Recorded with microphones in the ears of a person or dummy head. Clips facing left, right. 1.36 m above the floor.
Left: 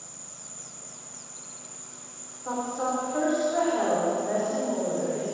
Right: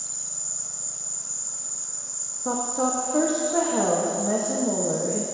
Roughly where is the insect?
Right.